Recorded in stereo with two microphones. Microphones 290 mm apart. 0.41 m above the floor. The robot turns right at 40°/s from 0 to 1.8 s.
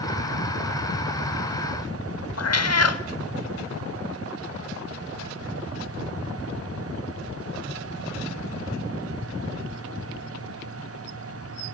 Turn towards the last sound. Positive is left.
turn(degrees=60)  # may be behind; listen again after turning